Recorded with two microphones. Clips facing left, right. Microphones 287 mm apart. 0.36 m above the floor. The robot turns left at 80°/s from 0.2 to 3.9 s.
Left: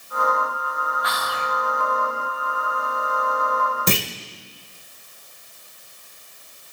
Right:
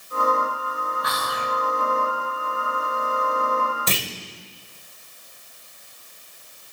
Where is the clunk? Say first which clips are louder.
Left 6 dB; 55° left (ahead or behind), 0.9 m.